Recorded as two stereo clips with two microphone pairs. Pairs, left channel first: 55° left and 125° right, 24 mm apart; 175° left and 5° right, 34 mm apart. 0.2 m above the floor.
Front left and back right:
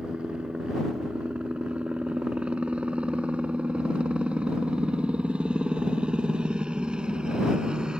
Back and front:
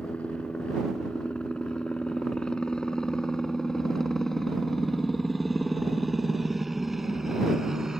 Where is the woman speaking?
No woman speaking in this recording.